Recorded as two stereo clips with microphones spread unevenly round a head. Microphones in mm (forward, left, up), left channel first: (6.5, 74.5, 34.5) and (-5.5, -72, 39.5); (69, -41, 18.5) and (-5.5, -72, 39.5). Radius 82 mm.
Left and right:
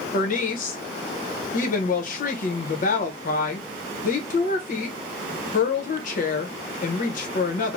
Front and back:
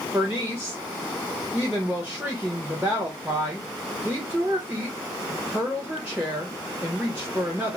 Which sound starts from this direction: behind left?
A woman speaking, at 0.1 s.